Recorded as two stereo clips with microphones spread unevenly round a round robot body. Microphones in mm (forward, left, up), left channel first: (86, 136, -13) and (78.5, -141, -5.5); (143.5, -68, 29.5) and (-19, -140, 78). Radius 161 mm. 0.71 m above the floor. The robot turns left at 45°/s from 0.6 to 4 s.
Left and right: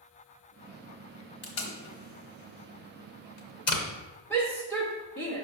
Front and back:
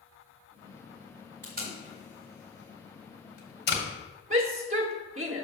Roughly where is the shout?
Behind.